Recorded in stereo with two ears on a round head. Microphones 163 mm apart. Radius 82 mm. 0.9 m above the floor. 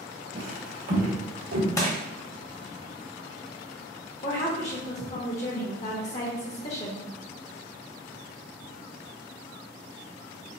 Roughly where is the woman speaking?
Left.